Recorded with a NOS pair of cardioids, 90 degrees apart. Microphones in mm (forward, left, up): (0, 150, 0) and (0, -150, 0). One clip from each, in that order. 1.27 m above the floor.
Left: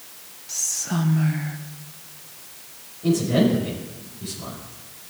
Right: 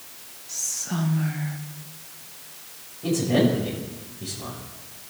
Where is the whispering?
20° left, 1.1 m.